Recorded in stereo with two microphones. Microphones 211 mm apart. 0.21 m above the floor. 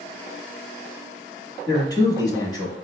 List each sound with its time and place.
1.7 s a man speaking: 20° left (ahead or behind), 1.0 m